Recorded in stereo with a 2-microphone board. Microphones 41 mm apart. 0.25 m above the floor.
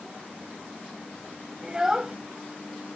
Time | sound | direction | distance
1.6 | a child speaking | 15° right (ahead or behind) | ?